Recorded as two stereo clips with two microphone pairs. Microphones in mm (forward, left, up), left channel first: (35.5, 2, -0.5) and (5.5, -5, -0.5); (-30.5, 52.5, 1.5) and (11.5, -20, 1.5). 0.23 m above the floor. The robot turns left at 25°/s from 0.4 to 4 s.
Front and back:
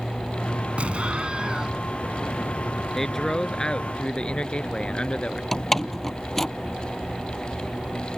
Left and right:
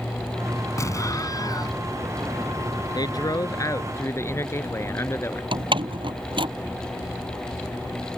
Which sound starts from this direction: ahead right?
A door slam, at 5.5 s.